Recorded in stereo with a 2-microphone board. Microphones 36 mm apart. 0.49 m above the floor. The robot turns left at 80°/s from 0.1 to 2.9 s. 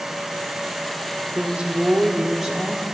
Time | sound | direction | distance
1.4 | a woman speaking | 70° right | 0.8 m